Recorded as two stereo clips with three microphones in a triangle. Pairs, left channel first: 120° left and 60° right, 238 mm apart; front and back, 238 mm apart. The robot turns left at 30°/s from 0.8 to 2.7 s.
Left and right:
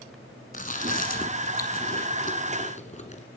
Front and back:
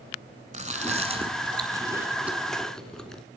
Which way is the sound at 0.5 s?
140° left.